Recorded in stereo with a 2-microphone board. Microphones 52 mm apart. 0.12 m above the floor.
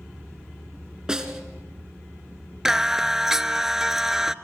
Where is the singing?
10° right (ahead or behind), 0.5 m.